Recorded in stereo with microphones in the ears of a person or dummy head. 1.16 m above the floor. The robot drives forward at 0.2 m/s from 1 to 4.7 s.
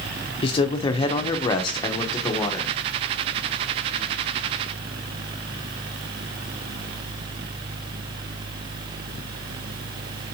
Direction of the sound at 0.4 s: 25° left (ahead or behind).